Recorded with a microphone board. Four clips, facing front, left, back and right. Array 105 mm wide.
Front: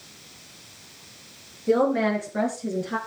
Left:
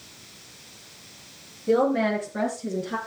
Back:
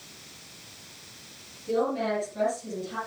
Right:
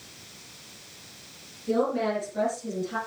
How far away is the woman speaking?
About 5 m.